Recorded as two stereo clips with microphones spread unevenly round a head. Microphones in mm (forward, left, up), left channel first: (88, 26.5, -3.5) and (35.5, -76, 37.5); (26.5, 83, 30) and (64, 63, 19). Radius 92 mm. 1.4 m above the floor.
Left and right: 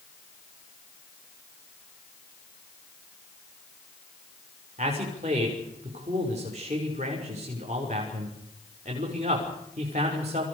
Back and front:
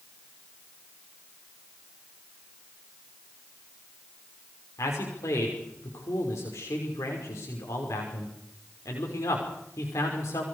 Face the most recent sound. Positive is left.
turn(degrees=-175)